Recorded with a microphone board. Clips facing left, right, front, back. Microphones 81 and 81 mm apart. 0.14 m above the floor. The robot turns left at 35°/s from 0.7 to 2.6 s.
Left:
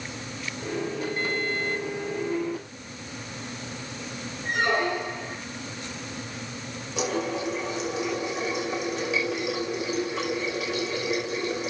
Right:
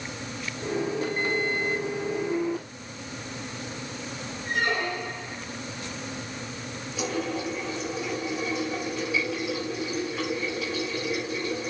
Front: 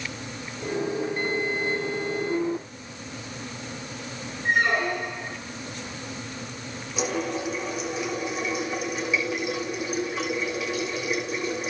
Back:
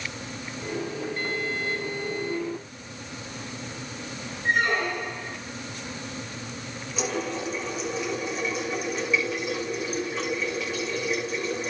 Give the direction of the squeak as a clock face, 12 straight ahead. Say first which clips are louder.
Left 3 dB, front 1 dB; 9 o'clock.